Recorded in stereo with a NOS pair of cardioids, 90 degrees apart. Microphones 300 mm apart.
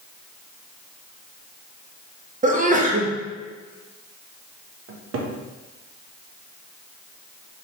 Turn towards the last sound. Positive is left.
turn(degrees=-45)